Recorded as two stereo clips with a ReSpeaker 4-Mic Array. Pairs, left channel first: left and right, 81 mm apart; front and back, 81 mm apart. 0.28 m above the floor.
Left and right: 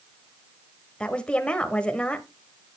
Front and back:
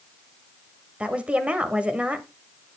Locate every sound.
1.0 s a woman speaking: 140° left, 1.2 m